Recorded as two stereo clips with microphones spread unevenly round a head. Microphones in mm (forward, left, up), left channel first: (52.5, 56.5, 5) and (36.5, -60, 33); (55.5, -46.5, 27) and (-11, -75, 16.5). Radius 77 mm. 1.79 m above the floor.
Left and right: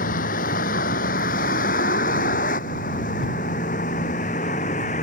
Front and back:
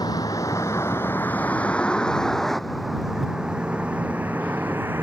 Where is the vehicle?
90° left; by 5.0 s 125° left.